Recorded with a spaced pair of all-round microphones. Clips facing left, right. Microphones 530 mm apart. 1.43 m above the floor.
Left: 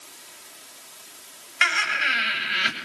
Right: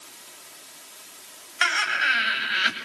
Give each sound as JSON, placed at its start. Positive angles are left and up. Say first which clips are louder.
{"t": 1.6, "sound": "laughter", "louder": "even", "side_deg": 45, "distance_m": 8.0}